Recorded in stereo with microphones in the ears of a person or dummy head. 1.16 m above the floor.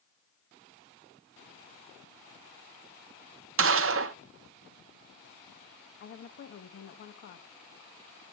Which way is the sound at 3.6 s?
60° right (ahead or behind).